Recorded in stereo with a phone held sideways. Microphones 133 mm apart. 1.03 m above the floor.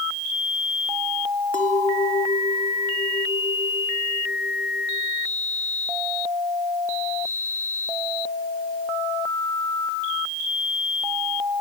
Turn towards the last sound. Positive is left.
turn(degrees=80)